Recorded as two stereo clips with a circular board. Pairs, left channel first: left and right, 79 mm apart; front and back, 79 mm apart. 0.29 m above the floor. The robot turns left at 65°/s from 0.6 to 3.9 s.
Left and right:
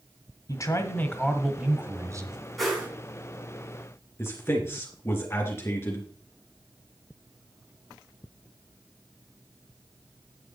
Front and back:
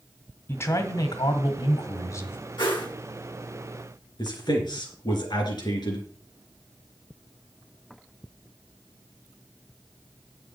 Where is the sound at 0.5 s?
55° left, 1.6 m; by 2.4 s 65° right, 1.6 m.